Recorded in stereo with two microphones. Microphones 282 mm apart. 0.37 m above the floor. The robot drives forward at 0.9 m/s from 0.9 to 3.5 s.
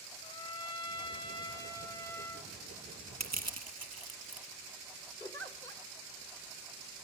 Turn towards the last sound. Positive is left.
turn(degrees=10)  # may be behind; listen again after turning